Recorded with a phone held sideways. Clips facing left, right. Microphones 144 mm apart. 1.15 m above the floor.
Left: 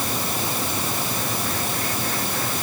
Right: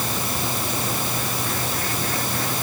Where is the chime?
No chime in this recording.